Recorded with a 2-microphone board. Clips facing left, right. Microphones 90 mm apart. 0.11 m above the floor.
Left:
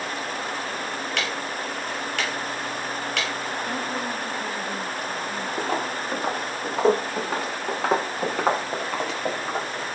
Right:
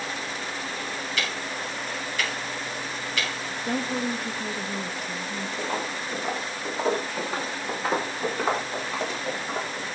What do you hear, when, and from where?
1.2 s ticking: 65° left (ahead or behind), 5.5 m
3.6 s a woman speaking: 5° left (ahead or behind), 2.5 m
5.6 s footsteps: 65° left (ahead or behind), 6.5 m; by 9.8 s 90° left, 10.5 m